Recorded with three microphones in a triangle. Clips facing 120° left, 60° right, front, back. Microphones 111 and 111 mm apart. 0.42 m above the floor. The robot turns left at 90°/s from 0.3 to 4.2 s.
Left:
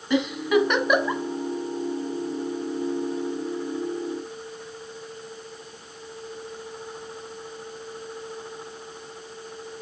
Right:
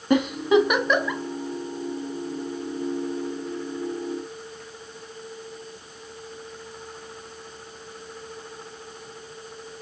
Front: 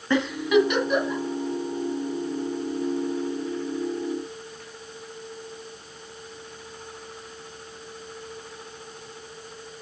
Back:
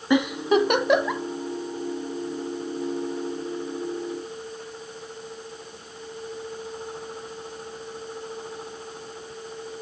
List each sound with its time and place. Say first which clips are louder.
0.1 s a giggle: right 3 dB, even; 105° right, 1.3 m; by 1.2 s 175° left, 1.3 m